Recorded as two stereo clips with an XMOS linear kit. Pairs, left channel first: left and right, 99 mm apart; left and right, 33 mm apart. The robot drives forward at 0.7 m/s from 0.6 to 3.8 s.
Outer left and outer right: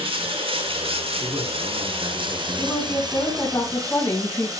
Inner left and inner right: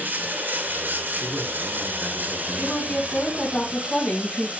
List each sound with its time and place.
0.0 s running water: 60° right (ahead or behind), 1.6 m; by 4.6 s 35° right (ahead or behind), 2.5 m
1.2 s a man speaking: 35° right (ahead or behind), 5 m; by 3.3 s 25° right (ahead or behind), 6.5 m
2.6 s a woman speaking: 20° left (ahead or behind), 5 m